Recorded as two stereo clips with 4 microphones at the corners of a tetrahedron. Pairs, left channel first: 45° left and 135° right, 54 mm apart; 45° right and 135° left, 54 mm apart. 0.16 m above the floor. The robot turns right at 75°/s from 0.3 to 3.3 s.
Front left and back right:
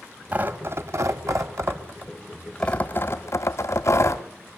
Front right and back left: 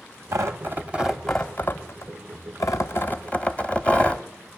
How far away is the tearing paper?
About 1.5 m.